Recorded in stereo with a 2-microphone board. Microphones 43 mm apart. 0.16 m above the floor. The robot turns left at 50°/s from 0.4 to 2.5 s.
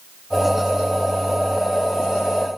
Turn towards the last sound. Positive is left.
No sound to turn to.